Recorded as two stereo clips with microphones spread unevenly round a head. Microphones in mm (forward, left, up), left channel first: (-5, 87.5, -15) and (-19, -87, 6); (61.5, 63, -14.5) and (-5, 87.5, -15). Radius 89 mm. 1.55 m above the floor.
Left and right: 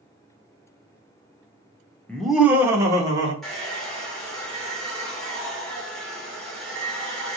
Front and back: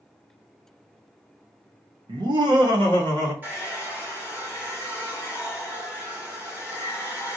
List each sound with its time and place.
2.1 s laughter: 170° left, 0.8 m; by 3.3 s 160° right, 1.8 m
3.4 s a hair dryer: straight behind, 1.3 m